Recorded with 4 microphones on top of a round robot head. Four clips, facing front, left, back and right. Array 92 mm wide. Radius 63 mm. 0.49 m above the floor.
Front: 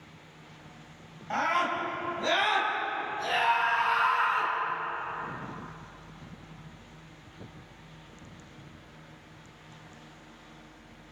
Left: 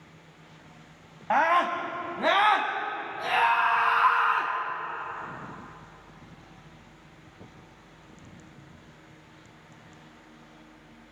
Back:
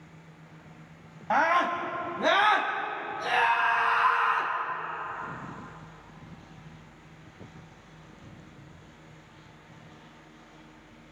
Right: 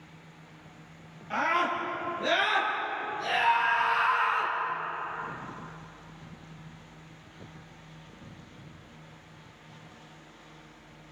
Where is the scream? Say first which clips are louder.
Left 5 dB, back 4 dB; 125° left, 3.5 m; by 4.5 s 110° left, 5.5 m.